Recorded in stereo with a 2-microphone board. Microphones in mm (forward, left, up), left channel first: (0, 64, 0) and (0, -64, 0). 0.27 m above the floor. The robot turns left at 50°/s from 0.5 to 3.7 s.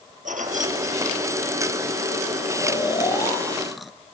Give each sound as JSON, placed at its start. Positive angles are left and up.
{"t": 0.2, "sound": "keys jangling", "side_deg": -80, "distance_m": 3.5}
{"t": 2.6, "sound": "snoring", "azimuth_deg": 55, "distance_m": 0.9}